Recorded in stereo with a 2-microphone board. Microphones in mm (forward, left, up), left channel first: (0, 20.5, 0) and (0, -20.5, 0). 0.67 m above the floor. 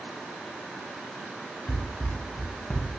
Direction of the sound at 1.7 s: 55° left (ahead or behind).